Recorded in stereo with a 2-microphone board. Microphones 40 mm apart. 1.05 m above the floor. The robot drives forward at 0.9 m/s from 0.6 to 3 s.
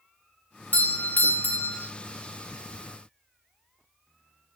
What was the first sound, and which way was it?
A doorbell, 45° left (ahead or behind).